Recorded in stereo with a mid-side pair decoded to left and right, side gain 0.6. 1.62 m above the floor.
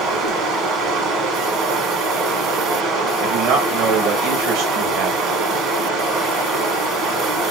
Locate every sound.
0.0 s running water: 55° right, 1.5 m
3.2 s a man speaking: 70° right, 1.7 m